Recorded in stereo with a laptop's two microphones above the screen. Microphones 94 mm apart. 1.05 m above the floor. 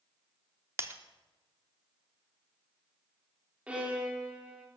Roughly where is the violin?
Centre.